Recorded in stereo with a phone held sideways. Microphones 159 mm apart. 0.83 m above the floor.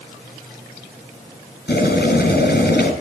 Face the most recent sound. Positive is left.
turn(degrees=80)